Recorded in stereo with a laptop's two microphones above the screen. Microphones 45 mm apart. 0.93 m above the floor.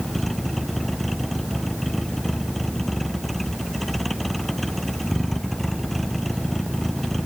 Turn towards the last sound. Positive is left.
turn(degrees=5)  # may be behind; listen again after turning